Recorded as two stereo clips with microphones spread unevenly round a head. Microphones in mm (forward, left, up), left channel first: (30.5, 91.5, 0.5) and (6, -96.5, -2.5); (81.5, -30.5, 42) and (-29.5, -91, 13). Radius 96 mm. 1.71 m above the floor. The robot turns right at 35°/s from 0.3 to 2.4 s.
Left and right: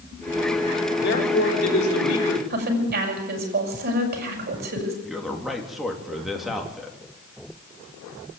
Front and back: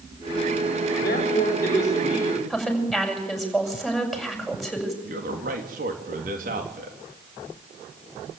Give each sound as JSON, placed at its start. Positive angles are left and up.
{"t": 1.0, "sound": "a man speaking", "azimuth_deg": 50, "distance_m": 5.5}
{"t": 2.5, "sound": "a woman speaking", "azimuth_deg": -60, "distance_m": 7.5}
{"t": 5.0, "sound": "a man speaking", "azimuth_deg": 175, "distance_m": 3.0}